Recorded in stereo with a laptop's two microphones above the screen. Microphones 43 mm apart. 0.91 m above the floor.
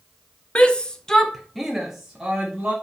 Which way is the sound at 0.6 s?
25° left (ahead or behind).